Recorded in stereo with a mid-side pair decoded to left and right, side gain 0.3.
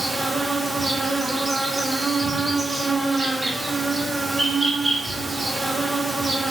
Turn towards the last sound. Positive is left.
turn(degrees=-30)